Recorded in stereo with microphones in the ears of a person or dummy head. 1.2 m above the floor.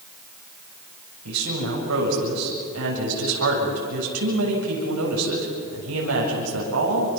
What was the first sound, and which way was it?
A woman speaking, 85° right.